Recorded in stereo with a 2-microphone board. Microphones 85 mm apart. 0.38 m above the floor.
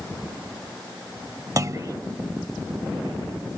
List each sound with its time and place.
1.6 s a clunk: 40° right (ahead or behind)